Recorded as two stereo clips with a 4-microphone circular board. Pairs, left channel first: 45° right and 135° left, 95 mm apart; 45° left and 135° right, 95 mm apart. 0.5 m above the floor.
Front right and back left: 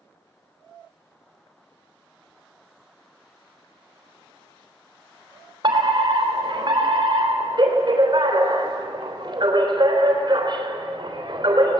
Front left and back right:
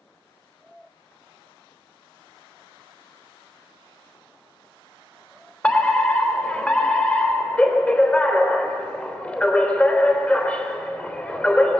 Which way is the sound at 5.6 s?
120° left.